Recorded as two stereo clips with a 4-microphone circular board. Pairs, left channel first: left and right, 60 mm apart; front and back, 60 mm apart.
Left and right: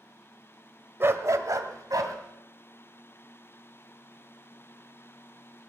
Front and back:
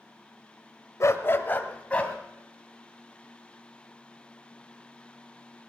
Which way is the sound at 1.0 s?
40° right.